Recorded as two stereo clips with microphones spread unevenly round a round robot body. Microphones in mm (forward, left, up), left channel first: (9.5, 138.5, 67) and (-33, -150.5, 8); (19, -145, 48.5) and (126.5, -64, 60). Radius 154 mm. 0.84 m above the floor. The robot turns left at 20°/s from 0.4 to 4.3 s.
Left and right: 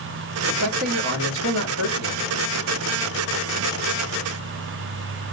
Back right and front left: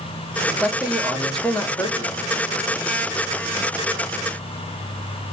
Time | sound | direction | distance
0.5 | a man speaking | 40° right | 1.7 m